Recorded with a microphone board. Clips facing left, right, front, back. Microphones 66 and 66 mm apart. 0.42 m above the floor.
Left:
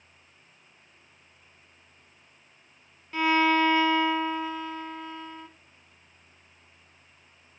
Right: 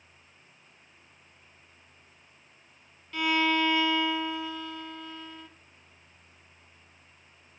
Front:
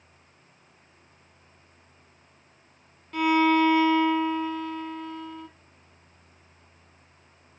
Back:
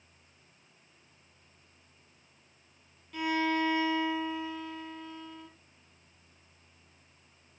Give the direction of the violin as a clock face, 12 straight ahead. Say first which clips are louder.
Left 4 dB, front 9 dB; 11 o'clock.